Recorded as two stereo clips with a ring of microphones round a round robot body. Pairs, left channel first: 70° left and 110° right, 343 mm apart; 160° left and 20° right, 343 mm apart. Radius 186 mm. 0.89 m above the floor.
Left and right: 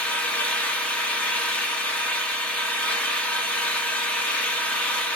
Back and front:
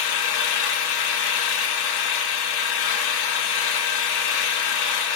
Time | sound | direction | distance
0.0 | an engine running | 155° left | 0.7 m